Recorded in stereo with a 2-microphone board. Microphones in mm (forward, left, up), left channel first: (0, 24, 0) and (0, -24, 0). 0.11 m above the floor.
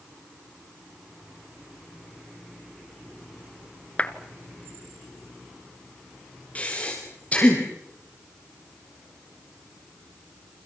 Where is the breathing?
30° left (ahead or behind), 6.5 m.